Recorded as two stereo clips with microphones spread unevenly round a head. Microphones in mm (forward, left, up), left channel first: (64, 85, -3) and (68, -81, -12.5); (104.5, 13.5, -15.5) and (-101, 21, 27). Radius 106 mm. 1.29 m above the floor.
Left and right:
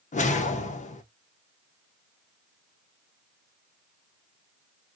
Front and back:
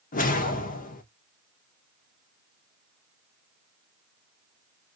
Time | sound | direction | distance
0.1 | a whoosh | 55° left | 0.7 m